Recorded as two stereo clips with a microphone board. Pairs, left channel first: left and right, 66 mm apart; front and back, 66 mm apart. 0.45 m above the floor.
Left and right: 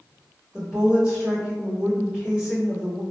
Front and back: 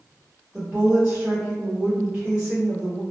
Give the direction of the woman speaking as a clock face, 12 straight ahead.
5 o'clock.